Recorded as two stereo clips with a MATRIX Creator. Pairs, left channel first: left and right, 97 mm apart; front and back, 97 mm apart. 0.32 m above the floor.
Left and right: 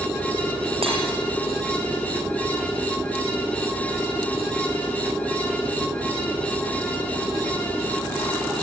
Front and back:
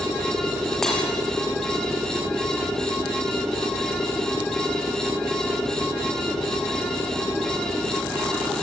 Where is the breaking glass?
85° right, 5.5 m.